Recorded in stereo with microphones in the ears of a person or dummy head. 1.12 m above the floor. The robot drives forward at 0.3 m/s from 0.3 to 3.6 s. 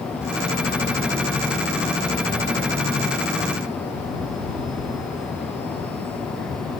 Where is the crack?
No crack in this recording.